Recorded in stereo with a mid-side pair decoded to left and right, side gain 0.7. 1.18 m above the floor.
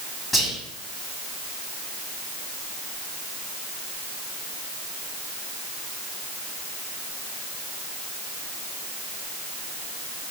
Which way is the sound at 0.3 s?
10° left.